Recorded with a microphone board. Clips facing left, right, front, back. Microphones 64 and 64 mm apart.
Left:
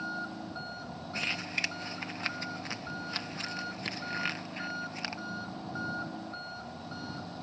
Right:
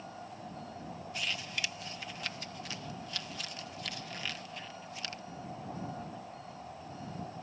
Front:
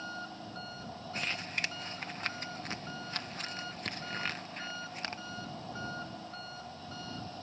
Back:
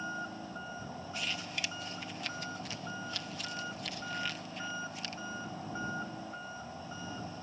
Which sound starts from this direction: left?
An engine running, at 0.0 s.